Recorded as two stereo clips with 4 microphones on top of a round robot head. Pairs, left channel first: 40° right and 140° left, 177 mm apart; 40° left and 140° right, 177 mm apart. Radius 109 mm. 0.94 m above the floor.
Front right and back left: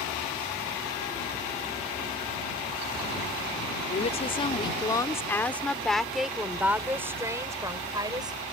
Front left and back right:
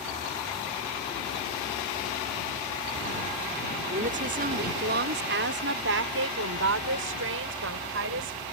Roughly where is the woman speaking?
Right.